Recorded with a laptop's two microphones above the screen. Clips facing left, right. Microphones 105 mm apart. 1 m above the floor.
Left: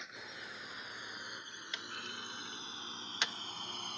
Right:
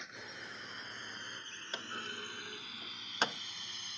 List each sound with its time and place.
0.0 s a drone: centre (ahead or behind); by 4.0 s 50° left (ahead or behind)
1.7 s a clunk: 40° right (ahead or behind)